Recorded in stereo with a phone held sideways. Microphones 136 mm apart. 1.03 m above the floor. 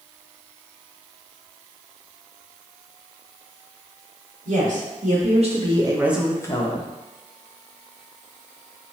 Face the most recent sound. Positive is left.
turn(degrees=45)  # may be behind; listen again after turning